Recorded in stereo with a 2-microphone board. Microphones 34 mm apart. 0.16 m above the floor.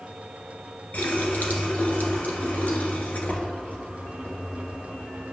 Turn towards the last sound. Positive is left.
turn(degrees=60)  # may be behind; listen again after turning